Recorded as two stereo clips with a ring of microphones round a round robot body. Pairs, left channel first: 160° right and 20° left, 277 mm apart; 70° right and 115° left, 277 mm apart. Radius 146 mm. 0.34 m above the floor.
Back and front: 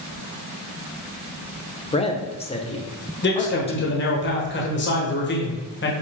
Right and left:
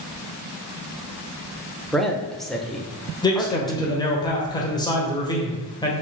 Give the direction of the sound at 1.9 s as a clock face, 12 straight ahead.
5 o'clock.